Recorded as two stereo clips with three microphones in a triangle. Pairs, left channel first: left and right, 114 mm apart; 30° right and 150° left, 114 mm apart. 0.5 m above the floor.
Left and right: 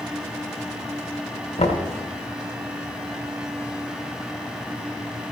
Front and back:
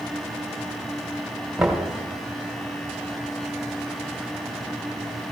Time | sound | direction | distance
1.6 | knocking | 65° left | 1.6 m